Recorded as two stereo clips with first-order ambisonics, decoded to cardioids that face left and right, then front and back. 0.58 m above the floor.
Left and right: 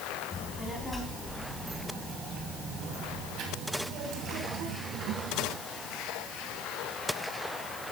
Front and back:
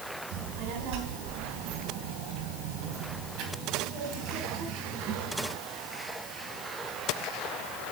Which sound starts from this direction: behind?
A child speaking, at 0.3 s.